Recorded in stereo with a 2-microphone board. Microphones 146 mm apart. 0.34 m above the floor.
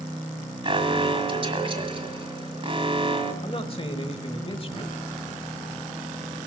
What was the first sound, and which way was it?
An alarm, 40° right (ahead or behind).